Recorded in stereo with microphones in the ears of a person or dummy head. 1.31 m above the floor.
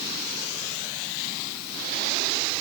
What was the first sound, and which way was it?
Only background noise.